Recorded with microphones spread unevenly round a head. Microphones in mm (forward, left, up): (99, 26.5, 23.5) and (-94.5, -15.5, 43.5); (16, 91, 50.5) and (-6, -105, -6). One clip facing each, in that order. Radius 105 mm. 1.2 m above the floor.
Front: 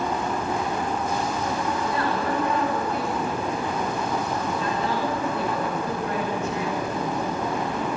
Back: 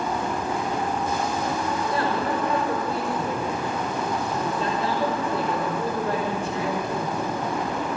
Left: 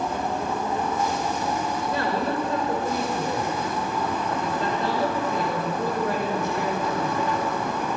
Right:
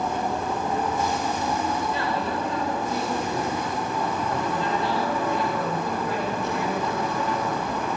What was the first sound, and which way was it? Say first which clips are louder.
A man speaking: back 2 dB, left 2 dB; 135° left.